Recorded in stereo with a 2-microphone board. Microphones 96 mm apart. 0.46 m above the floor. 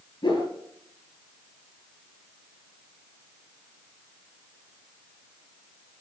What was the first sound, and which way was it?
A whoosh, 55° left (ahead or behind).